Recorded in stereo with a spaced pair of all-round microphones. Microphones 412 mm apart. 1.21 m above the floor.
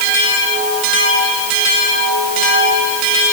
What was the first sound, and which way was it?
Only background noise.